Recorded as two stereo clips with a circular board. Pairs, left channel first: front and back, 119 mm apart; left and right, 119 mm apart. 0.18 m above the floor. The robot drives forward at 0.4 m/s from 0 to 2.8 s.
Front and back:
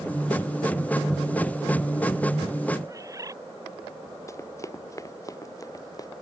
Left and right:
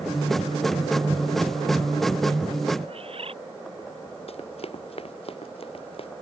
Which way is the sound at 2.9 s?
120° right.